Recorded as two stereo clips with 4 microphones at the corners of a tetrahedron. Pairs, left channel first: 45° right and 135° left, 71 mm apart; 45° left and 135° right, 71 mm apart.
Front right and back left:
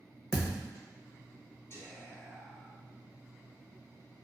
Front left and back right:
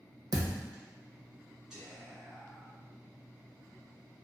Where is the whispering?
60° right, 1.4 m.